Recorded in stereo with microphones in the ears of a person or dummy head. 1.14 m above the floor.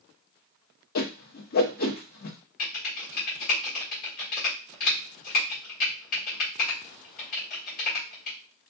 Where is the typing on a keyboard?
35° left (ahead or behind), 1.2 m.